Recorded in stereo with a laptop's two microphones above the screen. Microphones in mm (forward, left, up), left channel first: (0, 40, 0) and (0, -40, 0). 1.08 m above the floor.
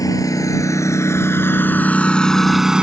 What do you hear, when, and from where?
0.0 s a lawn mower: 45° left (ahead or behind); by 2.8 s 10° right (ahead or behind)